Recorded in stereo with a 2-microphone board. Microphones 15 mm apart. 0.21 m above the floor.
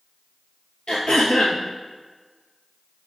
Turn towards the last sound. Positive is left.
turn(degrees=65)  # may be behind; listen again after turning